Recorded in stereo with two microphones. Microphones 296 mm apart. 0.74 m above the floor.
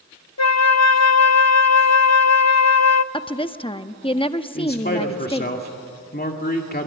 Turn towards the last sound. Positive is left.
turn(degrees=35)  # may be behind; listen again after turning